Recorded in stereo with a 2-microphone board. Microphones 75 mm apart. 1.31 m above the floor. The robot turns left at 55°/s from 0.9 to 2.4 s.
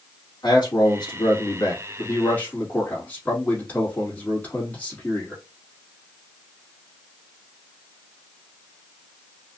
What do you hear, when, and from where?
0.4 s a man speaking: 105° left, 2.5 m; by 5.4 s 20° left, 2.5 m